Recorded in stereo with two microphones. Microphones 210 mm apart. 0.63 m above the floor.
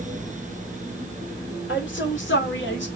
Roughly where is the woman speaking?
Left.